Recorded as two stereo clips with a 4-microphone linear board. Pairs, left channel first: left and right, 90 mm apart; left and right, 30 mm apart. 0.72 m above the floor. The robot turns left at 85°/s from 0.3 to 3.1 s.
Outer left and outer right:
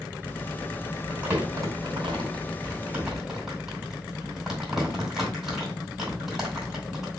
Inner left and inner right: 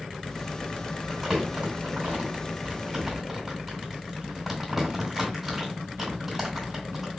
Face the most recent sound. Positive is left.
turn(degrees=-5)  # may be behind; listen again after turning